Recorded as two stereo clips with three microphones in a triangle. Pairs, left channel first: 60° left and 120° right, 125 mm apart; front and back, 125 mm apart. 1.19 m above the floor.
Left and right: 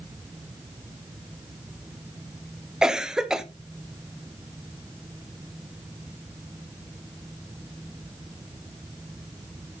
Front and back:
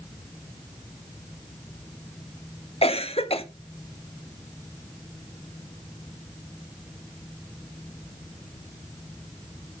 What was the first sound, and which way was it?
A cough, 35° right.